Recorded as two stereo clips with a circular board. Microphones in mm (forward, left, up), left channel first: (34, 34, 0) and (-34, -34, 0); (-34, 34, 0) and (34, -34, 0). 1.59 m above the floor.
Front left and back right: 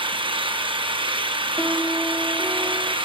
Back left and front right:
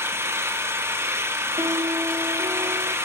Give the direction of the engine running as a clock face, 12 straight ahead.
4 o'clock.